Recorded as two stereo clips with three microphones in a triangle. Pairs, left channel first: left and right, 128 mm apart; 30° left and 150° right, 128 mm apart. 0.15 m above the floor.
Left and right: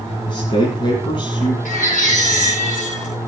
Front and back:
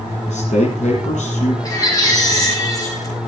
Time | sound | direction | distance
0.3 | a man speaking | 40° left | 5 m
1.6 | a baby crying | 95° left | 6.5 m